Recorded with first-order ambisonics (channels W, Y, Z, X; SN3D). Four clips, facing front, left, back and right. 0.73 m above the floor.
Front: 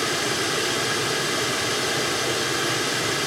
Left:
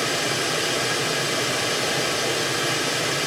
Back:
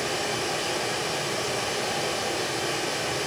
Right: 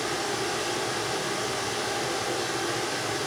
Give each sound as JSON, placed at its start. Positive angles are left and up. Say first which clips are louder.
{"t": 0.0, "sound": "running water", "louder": "left 5 dB, front 4 dB", "azimuth_deg": 40, "distance_m": 4.0}